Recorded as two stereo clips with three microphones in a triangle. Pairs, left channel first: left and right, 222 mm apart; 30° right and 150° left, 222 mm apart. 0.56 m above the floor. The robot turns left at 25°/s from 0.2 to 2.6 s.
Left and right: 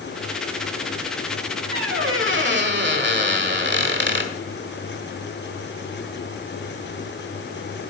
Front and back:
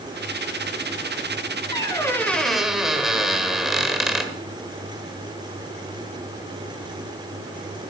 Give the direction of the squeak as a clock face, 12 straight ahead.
3 o'clock.